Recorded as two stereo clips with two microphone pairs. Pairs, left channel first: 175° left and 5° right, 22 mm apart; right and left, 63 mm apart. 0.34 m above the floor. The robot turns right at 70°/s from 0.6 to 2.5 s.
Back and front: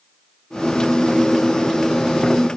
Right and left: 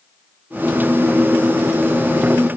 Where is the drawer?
No drawer in this recording.